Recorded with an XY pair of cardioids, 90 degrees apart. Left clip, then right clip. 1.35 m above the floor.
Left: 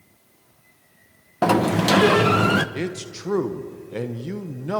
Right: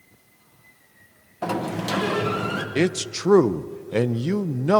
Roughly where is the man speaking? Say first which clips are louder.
Right 6 dB; ahead right.